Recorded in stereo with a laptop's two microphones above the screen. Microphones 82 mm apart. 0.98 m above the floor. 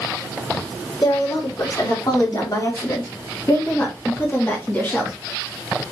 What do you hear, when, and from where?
1.0 s a woman speaking: 60° left (ahead or behind), 3.5 m; by 5.1 s 20° left (ahead or behind), 1.8 m